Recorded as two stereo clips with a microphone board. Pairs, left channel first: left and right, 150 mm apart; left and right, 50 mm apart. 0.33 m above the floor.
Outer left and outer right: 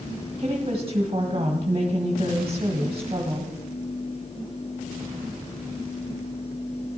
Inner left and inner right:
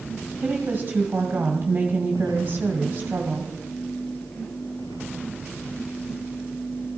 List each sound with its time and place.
0.4 s a woman speaking: 40° right (ahead or behind), 1.6 m